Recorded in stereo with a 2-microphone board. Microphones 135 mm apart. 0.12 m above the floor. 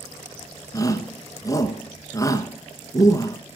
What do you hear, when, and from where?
0.7 s a shout: 25° left (ahead or behind), 1.7 m